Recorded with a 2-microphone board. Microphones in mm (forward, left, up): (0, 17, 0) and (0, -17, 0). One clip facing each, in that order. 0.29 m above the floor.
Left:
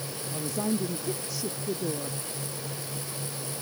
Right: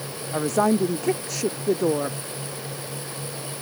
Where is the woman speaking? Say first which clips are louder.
Right 10 dB; 65° right (ahead or behind).